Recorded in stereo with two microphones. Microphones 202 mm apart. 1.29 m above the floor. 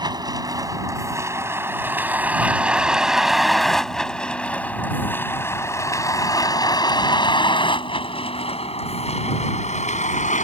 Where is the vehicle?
20° right (ahead or behind); by 10.5 s 35° left (ahead or behind).